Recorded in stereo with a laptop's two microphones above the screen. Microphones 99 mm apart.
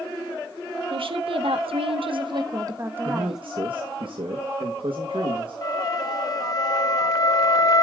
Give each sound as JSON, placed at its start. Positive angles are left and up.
{"t": 0.9, "sound": "a woman speaking", "side_deg": -70, "distance_m": 1.7}
{"t": 3.0, "sound": "a man speaking", "side_deg": -70, "distance_m": 1.2}
{"t": 5.6, "sound": "a flute", "side_deg": 45, "distance_m": 0.8}